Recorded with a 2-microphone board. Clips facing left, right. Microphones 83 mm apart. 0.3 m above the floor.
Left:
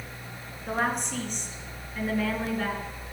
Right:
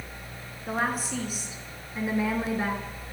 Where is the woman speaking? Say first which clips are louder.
Even; centre (ahead or behind), 4 m; by 2.9 s 25° right (ahead or behind), 4 m.